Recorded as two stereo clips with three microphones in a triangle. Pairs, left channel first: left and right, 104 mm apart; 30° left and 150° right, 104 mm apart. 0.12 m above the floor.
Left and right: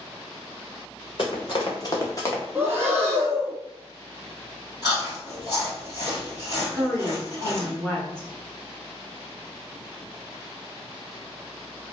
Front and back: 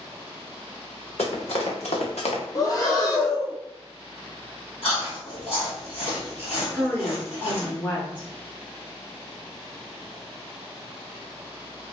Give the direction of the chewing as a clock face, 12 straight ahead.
11 o'clock.